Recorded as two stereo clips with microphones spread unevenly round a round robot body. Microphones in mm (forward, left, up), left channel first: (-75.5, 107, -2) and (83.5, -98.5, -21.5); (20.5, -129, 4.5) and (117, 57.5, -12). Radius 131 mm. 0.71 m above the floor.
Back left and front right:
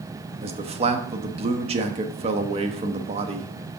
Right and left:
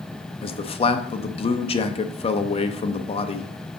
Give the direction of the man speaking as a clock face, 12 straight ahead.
3 o'clock.